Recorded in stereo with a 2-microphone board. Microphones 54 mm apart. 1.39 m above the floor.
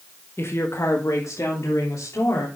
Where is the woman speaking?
50° left (ahead or behind), 1.5 m; by 2.5 s 85° left, 3.5 m.